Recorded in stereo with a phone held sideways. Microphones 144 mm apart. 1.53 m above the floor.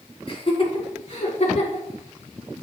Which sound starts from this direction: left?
Laughter, at 0.3 s.